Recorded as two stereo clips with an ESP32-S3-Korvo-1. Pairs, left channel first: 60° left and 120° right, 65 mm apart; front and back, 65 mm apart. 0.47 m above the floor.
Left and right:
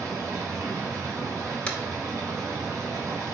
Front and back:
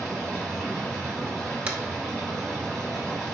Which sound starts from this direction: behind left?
Tapping, at 1.7 s.